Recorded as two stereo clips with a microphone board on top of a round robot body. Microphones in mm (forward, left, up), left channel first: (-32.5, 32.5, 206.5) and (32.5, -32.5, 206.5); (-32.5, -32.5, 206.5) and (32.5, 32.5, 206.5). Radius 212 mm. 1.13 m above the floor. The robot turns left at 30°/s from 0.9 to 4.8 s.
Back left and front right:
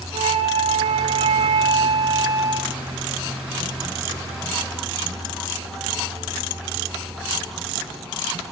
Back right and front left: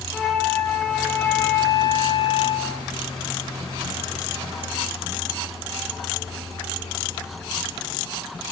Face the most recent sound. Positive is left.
turn(degrees=-175)